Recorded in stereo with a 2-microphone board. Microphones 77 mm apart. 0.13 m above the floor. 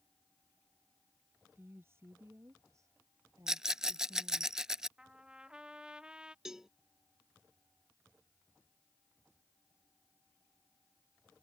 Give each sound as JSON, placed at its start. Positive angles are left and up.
{"t": 1.6, "sound": "a woman speaking", "side_deg": -30}
{"t": 3.5, "sound": "a rattle", "side_deg": -10}
{"t": 5.0, "sound": "a trumpet", "side_deg": -10}
{"t": 6.5, "sound": "a cowbell", "side_deg": -5}